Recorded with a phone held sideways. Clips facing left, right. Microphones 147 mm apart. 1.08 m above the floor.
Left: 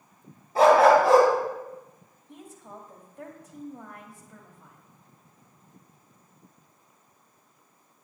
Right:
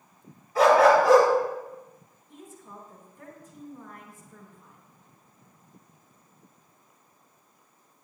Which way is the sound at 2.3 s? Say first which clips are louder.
Left 1 dB; 70° left (ahead or behind).